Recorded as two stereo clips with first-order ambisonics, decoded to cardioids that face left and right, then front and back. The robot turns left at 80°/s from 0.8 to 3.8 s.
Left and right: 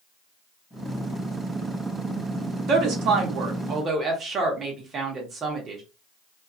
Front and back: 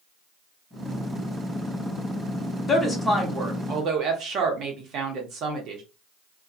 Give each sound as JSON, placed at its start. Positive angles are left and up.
{"t": 2.7, "sound": "a woman speaking", "azimuth_deg": -60, "distance_m": 0.8}